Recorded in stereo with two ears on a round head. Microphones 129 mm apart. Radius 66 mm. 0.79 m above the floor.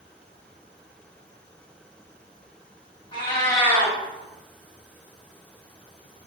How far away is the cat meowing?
About 1.0 m.